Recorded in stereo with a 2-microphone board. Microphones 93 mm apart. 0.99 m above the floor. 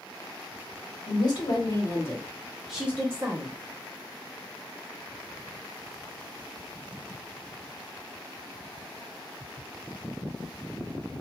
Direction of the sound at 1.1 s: 50° left (ahead or behind).